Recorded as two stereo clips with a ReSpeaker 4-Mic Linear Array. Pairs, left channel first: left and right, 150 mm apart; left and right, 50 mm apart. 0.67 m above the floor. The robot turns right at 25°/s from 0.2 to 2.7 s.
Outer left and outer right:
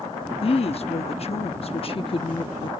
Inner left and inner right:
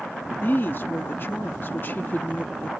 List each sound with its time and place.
0.4 s a woman speaking: 75° left; by 2.7 s 130° left